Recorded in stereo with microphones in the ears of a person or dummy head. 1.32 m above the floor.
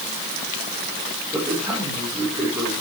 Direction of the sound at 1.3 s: 15° right (ahead or behind).